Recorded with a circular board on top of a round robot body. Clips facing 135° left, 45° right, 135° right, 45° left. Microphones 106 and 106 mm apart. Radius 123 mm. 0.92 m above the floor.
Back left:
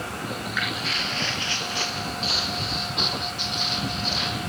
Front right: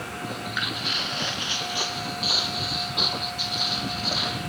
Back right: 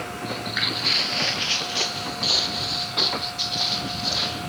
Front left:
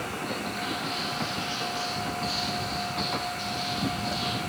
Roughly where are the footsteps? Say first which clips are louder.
Back left 1 dB, back right 3 dB; right.